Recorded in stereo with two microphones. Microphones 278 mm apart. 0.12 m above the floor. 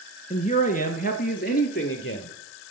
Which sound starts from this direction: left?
A man speaking, at 0.3 s.